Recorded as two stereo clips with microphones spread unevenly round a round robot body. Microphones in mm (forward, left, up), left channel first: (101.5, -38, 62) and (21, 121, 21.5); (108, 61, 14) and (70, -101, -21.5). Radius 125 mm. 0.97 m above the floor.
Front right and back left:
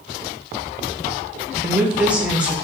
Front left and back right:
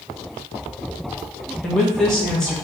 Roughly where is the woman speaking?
Behind.